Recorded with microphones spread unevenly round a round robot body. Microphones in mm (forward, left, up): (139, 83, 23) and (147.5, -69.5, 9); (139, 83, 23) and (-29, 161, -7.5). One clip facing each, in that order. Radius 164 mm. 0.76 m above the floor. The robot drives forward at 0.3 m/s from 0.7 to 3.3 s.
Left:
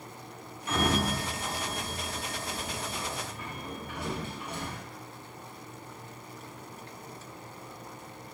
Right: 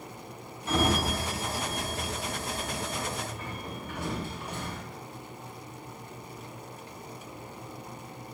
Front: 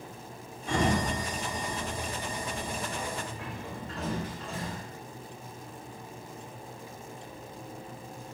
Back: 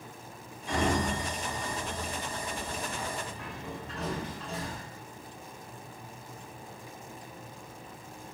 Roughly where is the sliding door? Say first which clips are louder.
Right 1 dB, front 1 dB; ahead right.